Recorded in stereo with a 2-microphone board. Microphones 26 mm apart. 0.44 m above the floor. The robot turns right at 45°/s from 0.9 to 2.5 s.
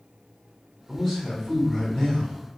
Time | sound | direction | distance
0.9 | a man speaking | 10° left | 1.6 m